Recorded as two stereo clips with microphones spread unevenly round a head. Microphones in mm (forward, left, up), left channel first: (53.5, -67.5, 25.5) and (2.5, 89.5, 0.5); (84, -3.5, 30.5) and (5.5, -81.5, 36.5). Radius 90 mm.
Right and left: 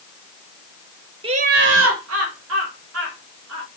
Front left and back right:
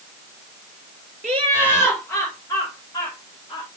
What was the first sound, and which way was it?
Laughter, straight behind.